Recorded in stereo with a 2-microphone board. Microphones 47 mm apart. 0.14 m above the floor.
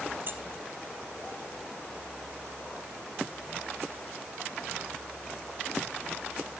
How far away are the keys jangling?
About 2.5 m.